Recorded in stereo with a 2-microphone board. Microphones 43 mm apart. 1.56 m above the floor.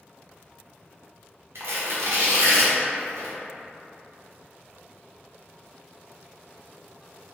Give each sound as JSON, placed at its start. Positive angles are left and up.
{"t": 1.6, "sound": "tearing paper", "side_deg": -80, "distance_m": 0.6}